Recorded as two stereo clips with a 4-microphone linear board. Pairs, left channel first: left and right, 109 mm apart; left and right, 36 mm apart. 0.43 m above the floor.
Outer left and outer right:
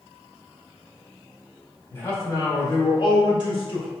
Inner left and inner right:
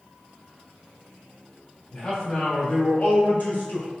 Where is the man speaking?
20° left (ahead or behind), 1.2 m; by 3.9 s 55° left (ahead or behind), 1.7 m.